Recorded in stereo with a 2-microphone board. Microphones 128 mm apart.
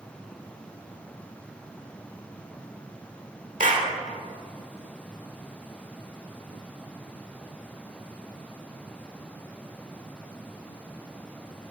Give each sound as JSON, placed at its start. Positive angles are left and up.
{"t": 3.6, "sound": "a clap", "side_deg": -80, "distance_m": 1.6}